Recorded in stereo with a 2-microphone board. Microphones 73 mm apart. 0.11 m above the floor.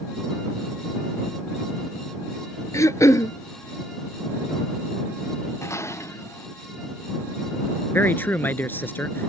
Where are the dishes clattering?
40° left (ahead or behind).